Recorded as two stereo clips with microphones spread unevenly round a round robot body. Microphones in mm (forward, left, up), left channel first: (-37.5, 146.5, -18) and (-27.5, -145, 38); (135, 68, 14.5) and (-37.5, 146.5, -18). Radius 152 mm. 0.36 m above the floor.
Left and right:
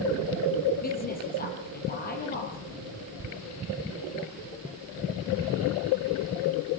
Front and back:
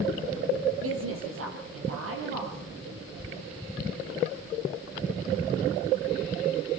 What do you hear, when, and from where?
0.8 s a woman speaking: 155° left, 9.5 m